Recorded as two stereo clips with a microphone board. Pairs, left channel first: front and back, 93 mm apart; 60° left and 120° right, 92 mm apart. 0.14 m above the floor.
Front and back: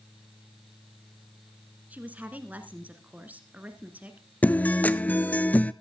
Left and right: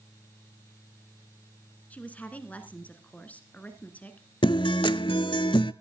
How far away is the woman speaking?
About 1.5 m.